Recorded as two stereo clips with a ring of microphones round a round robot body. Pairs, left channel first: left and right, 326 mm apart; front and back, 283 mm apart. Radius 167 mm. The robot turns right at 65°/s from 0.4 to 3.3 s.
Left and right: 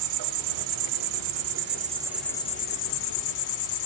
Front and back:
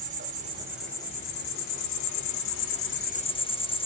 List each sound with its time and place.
0.0 s an insect: 115° right, 0.9 m; by 3.9 s 70° left, 0.9 m